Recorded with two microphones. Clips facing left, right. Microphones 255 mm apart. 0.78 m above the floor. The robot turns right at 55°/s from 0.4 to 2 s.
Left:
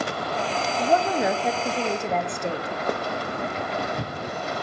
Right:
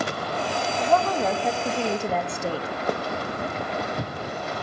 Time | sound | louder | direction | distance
0.8 | a woman speaking | left 1 dB | 25° left (ahead or behind) | 0.5 m